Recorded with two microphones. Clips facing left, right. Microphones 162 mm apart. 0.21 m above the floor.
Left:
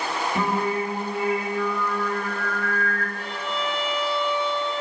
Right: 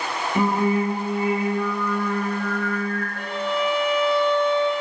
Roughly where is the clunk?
I don't hear a clunk.